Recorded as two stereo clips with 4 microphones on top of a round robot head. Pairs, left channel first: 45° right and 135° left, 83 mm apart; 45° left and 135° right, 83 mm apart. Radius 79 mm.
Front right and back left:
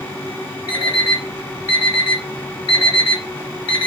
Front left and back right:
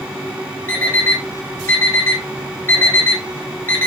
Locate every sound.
0.7 s an alarm clock: 20° right, 1.9 m